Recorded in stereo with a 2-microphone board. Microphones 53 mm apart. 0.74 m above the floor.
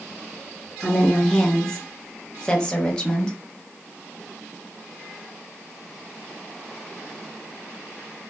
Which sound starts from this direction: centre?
A woman speaking, at 0.8 s.